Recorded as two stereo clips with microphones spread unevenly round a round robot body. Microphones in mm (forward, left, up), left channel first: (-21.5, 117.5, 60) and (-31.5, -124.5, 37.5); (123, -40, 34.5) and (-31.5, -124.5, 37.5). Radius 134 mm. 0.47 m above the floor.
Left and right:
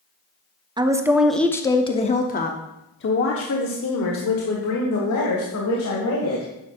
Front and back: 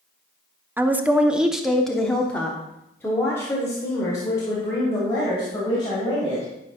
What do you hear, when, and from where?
0.8 s a woman speaking: 85° right, 0.9 m; by 6.5 s 100° left, 3 m